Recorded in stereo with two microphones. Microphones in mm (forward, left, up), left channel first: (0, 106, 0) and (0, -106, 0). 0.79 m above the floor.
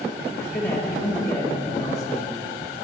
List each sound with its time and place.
0.4 s a man speaking: 15° left (ahead or behind), 1.5 m